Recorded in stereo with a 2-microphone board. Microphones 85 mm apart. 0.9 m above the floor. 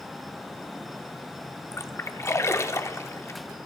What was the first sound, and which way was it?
A splash, 35° left (ahead or behind).